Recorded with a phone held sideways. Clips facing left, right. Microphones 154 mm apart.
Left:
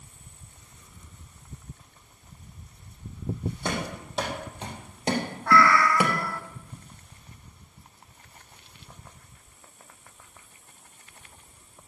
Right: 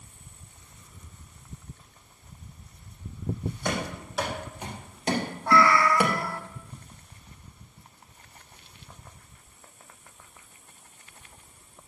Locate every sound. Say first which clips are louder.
3.6 s running footsteps: right 1 dB; 30° left (ahead or behind), 4 m; by 6.5 s centre (ahead or behind), 1.6 m
5.5 s a cat meowing: even; 20° right (ahead or behind), 0.9 m